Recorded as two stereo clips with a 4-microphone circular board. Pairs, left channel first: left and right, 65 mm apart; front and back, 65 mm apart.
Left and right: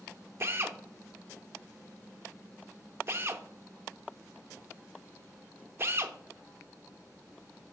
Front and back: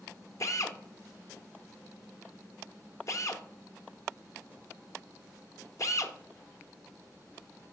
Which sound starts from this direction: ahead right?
A drill, at 0.4 s.